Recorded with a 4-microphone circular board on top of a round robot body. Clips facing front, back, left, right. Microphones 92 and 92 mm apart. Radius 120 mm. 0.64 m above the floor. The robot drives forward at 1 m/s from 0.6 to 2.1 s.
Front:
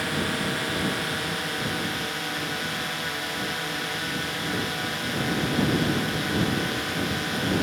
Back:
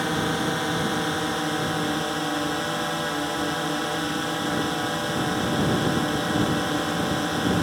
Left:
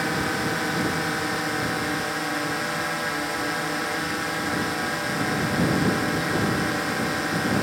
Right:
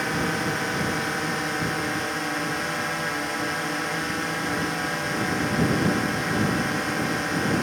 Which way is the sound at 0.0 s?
175° left.